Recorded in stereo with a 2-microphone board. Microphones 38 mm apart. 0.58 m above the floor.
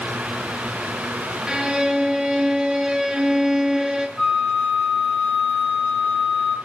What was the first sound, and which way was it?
A violin, 20° right (ahead or behind).